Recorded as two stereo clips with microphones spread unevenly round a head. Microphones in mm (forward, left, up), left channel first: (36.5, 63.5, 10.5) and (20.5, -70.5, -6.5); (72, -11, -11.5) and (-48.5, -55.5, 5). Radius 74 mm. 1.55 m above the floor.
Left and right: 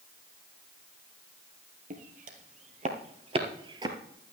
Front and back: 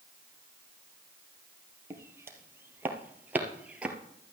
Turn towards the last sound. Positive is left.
turn(degrees=-120)